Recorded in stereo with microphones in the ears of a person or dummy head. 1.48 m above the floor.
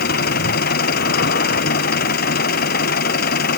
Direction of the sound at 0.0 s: 55° left (ahead or behind).